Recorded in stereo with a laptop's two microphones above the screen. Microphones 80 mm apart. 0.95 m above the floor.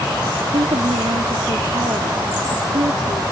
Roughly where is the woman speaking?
Right.